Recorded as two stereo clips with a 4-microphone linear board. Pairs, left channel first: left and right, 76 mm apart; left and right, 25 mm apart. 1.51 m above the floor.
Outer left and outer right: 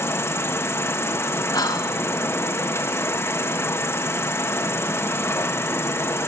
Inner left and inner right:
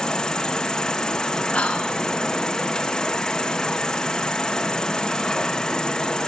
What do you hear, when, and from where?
0.0 s an insect: 35° left (ahead or behind), 0.8 m
1.5 s whispering: 60° left (ahead or behind), 1.6 m